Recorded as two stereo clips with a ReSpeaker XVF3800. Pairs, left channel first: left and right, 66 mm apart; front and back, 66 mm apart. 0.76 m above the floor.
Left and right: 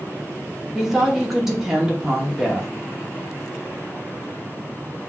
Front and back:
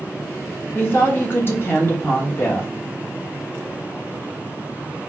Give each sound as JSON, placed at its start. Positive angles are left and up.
{"t": 0.8, "sound": "a woman speaking", "azimuth_deg": -10, "distance_m": 1.0}